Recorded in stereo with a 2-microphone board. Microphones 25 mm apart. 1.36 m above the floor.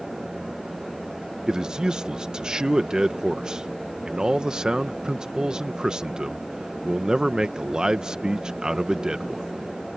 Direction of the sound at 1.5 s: 30° right (ahead or behind).